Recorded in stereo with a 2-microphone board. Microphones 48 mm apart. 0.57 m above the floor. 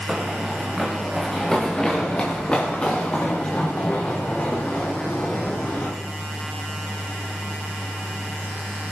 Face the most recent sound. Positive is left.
turn(degrees=40)  # may be behind; listen again after turning